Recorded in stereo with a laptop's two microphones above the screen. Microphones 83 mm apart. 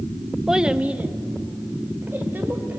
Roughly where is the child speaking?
Centre.